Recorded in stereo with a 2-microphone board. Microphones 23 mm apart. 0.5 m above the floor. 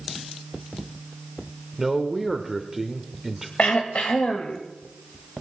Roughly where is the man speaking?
Centre.